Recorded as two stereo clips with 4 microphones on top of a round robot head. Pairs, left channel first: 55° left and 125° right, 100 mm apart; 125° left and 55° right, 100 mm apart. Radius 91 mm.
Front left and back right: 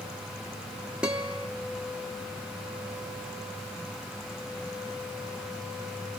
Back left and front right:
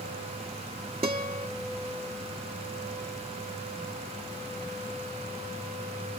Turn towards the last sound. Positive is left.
turn(degrees=-40)